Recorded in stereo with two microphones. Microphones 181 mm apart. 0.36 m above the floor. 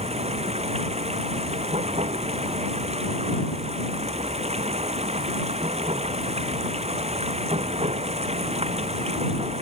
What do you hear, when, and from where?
0.0 s running water: 40° right (ahead or behind)